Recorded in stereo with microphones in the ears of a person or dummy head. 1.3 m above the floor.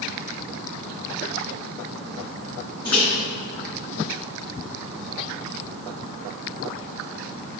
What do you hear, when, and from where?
2.9 s a microwave: 25° left (ahead or behind), 4 m